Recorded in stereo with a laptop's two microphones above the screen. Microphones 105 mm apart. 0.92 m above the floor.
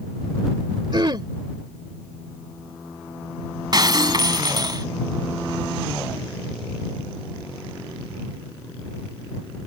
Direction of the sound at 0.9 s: 45° right (ahead or behind).